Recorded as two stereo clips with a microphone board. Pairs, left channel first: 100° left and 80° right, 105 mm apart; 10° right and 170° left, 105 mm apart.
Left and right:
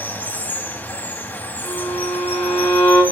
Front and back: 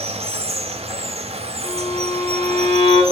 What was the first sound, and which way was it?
Running water, 170° left.